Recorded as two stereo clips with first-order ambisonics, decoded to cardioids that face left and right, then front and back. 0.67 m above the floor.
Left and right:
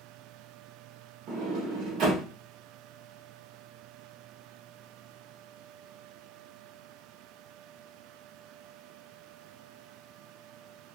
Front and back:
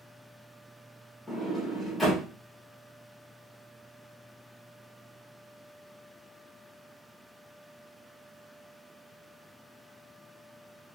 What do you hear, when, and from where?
1.3 s a sliding door: 80° right, 0.9 m